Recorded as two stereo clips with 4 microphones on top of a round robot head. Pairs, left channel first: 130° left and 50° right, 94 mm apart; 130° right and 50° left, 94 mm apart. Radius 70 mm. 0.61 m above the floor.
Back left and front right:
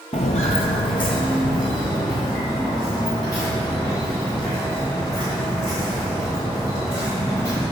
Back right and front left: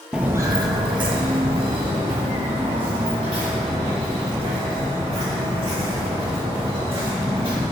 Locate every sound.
0.1 s footsteps: 135° left, 0.7 m; by 7.6 s 75° left, 8.5 m